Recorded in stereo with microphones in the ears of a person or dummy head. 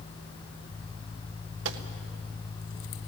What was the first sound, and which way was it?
A gunshot, 70° right (ahead or behind).